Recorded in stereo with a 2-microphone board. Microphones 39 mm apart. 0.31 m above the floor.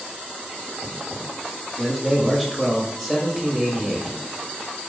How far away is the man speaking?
About 1.0 m.